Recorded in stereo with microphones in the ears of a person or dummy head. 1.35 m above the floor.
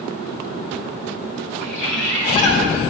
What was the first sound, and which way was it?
A bird, 40° left (ahead or behind).